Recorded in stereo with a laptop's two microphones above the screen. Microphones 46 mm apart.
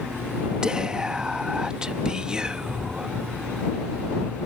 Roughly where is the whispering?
Centre.